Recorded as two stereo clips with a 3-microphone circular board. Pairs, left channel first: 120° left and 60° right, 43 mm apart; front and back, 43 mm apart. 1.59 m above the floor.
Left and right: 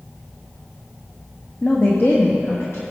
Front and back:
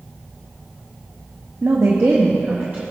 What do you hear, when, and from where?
1.6 s a woman speaking: straight behind, 0.8 m; by 2.8 s 130° left, 1.5 m